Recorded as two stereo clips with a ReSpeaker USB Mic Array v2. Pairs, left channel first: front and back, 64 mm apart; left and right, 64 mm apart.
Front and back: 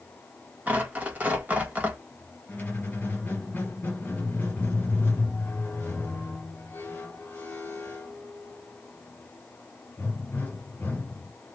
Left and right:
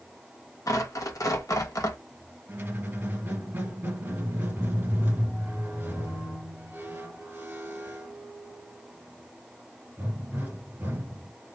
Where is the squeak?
50° right, 1.7 m.